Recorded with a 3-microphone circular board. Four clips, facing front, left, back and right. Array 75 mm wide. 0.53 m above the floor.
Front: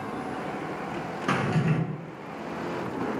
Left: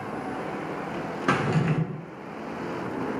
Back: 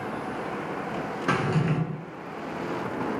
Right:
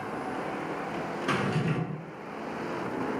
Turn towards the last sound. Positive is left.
turn(degrees=105)